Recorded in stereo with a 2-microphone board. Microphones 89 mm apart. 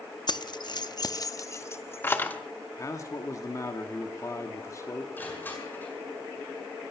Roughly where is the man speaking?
Left.